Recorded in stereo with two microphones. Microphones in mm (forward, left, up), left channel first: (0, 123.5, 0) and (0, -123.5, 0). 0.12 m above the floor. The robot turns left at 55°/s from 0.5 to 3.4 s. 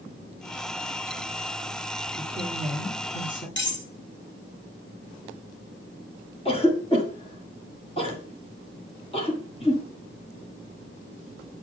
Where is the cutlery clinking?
50° left (ahead or behind), 1.7 m.